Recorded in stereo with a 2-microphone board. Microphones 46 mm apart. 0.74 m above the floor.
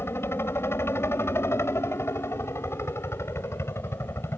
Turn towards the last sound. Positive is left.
turn(degrees=70)  # may be behind; listen again after turning